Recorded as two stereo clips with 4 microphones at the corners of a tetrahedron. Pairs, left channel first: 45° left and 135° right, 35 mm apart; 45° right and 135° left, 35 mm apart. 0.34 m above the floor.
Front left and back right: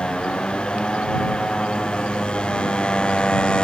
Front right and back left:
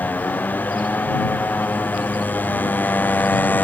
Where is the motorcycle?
15° right.